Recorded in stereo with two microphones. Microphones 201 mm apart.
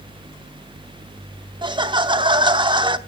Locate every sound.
1.6 s laughter: 25° right (ahead or behind), 0.7 m